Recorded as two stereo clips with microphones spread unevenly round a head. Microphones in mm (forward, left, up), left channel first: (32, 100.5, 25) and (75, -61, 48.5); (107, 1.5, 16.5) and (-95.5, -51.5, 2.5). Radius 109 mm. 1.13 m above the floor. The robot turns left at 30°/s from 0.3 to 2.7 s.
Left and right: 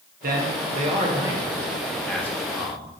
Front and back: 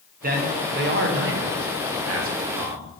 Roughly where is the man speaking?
Behind right.